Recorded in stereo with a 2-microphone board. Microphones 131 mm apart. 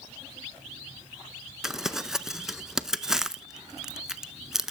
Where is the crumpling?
5° right (ahead or behind), 0.5 m.